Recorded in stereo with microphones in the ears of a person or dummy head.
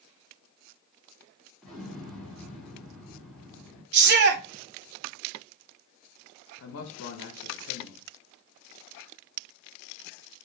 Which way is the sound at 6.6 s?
80° left.